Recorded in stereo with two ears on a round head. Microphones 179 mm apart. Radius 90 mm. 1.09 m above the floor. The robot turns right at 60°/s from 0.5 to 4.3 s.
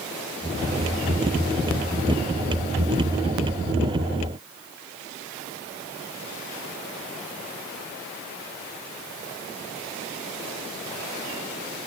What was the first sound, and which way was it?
Only background noise.